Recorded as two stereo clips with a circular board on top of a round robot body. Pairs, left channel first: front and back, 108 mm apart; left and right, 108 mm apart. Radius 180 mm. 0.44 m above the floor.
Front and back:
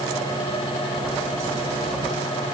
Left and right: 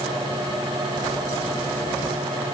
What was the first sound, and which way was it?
Only background noise.